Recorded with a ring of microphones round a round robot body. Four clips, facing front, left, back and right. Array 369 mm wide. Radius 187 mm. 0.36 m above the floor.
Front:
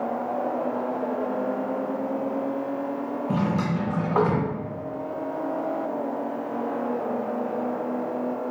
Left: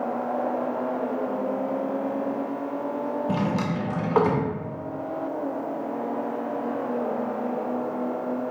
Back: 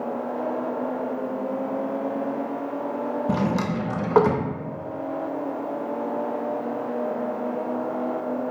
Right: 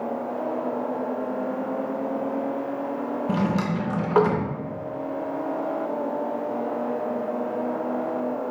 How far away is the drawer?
About 0.7 m.